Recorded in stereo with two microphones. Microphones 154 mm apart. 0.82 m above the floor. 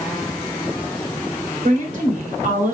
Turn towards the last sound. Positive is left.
turn(degrees=-55)  # may be behind; listen again after turning